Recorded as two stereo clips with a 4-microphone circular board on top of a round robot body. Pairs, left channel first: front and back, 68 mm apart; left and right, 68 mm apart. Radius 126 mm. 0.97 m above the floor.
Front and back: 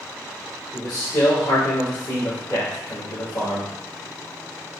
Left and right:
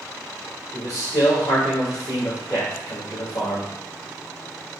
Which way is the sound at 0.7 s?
45° left.